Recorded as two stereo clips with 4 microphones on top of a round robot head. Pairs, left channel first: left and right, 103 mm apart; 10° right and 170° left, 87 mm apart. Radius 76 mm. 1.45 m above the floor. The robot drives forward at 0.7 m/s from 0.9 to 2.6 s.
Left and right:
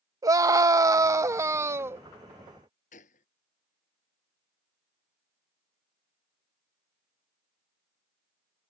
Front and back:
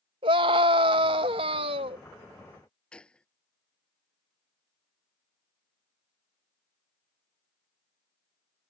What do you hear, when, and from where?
0.2 s a scream: 150° right; by 2.0 s 160° right
2.9 s a gunshot: 70° left